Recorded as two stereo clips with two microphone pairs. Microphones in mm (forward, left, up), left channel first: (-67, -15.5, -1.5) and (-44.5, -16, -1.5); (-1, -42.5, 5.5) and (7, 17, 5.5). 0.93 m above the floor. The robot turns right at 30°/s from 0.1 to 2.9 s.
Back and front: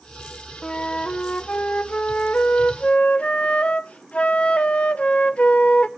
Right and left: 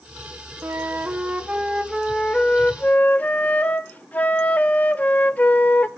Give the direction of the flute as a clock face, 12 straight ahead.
8 o'clock.